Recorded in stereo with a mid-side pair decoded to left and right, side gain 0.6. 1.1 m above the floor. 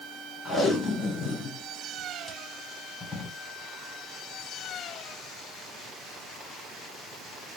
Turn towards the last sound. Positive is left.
turn(degrees=20)